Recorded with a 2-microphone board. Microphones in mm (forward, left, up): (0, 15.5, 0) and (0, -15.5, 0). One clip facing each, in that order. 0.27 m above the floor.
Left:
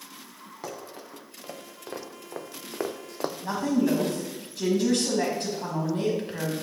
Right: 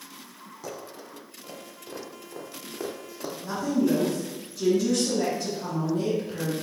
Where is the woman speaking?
50° left (ahead or behind), 1.5 m.